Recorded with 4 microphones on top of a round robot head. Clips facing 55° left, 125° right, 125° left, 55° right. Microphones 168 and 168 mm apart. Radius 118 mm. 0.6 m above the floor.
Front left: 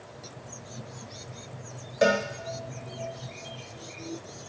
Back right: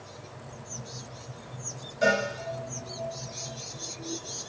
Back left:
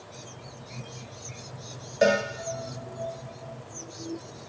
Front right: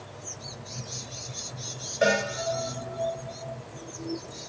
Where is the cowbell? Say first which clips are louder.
Front left 2 dB, back left 2 dB; 70° left, 1.0 m.